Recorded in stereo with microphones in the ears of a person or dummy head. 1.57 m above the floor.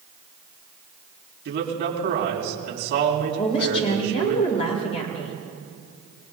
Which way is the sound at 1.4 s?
60° right (ahead or behind).